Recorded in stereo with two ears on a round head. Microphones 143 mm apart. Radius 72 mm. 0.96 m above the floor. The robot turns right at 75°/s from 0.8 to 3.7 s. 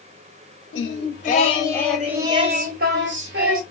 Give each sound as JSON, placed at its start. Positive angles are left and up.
{"t": 0.7, "sound": "singing", "azimuth_deg": 95, "distance_m": 0.8}